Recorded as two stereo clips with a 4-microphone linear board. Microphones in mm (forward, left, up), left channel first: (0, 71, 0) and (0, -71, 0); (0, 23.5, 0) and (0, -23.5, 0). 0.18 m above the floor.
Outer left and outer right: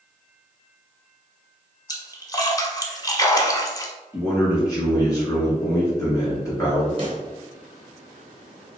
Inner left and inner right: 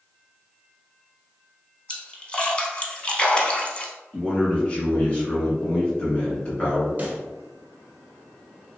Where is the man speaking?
25° left (ahead or behind), 1.9 m.